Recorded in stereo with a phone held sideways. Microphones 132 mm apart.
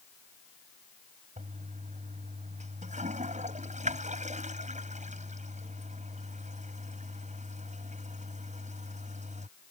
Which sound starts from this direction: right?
A toilet flushing, at 1.4 s.